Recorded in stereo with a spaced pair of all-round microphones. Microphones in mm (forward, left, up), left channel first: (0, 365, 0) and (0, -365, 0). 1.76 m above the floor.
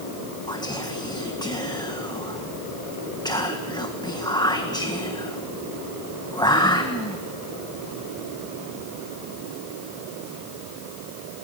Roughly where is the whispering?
Centre.